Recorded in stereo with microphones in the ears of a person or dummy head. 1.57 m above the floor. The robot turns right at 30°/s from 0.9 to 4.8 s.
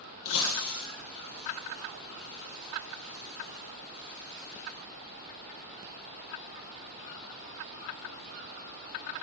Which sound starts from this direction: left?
Breaking glass, at 0.2 s.